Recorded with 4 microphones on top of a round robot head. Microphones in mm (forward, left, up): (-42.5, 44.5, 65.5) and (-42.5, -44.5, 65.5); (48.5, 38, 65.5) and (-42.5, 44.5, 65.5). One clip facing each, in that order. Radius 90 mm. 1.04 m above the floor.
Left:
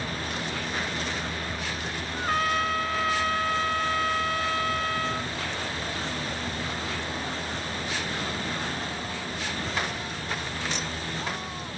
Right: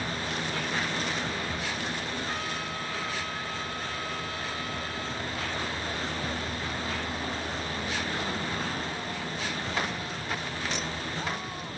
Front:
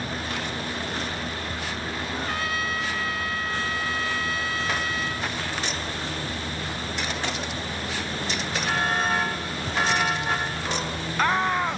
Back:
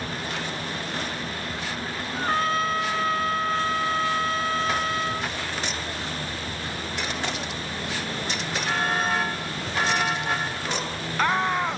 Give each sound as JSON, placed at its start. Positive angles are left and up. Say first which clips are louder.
{"t": 2.1, "sound": "a trumpet", "louder": "left 8 dB, back 7 dB", "azimuth_deg": 125}